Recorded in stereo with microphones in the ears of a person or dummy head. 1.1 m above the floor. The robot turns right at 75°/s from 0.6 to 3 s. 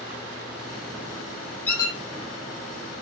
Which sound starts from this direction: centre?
A squeak, at 1.7 s.